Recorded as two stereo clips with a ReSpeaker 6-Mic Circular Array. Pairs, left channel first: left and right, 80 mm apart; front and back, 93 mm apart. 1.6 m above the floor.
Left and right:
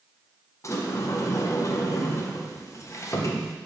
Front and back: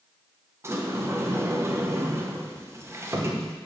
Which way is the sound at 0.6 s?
130° left.